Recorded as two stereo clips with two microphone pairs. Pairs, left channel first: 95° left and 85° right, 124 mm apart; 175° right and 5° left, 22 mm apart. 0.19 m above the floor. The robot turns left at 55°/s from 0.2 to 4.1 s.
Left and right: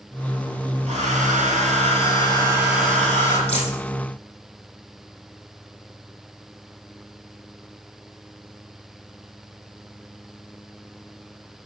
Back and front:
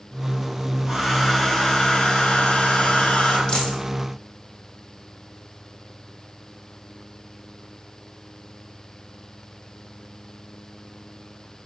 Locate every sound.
0.9 s a hair dryer: 65° right, 4 m; by 3.4 s 155° left, 4 m
3.5 s a dropped coin: 130° left, 4.5 m; by 3.8 s 115° left, 4.5 m